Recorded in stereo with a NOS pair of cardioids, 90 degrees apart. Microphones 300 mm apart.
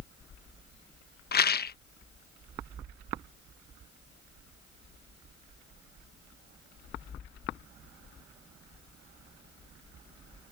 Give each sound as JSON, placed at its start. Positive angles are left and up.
{"t": 1.3, "sound": "a rattle", "azimuth_deg": 35}